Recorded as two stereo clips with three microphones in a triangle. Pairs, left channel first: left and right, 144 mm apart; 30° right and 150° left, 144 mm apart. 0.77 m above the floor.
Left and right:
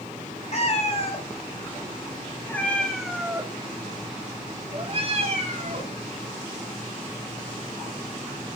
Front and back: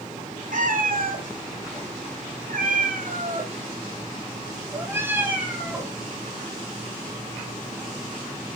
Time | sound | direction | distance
0.5 | a cat meowing | 130° left | 2.5 m